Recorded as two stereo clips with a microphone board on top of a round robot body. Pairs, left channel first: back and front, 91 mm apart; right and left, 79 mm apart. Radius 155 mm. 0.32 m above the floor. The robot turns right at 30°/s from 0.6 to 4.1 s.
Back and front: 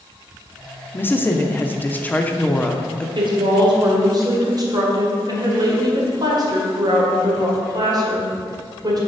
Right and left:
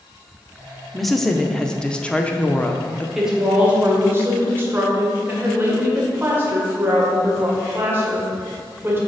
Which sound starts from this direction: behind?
A woman speaking, at 0.9 s.